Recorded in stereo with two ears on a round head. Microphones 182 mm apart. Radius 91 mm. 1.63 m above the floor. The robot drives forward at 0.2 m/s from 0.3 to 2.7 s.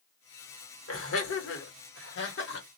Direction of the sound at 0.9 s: 70° left (ahead or behind).